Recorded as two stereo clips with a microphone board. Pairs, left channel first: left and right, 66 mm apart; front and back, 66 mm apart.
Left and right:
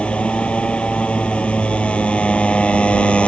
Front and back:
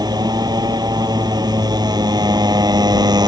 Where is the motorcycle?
165° left.